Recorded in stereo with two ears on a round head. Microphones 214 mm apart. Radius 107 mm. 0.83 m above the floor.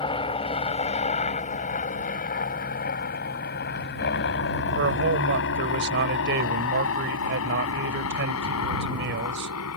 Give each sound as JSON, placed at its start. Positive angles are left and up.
{"t": 0.0, "sound": "a helicopter", "side_deg": 20}
{"t": 4.8, "sound": "a man speaking", "side_deg": -50}